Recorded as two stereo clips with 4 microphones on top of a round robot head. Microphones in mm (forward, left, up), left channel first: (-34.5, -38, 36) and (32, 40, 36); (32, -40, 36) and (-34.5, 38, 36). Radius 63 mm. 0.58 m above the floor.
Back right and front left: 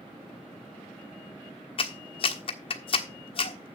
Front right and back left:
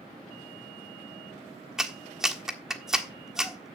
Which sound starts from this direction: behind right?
A clap, at 1.8 s.